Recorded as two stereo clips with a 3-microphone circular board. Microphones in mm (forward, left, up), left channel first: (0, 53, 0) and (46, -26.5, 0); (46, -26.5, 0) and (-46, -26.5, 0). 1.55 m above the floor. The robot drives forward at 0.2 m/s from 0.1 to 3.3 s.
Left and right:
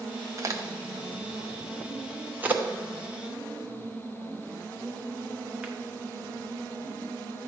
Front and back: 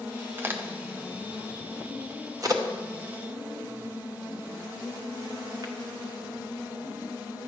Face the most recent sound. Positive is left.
turn(degrees=-135)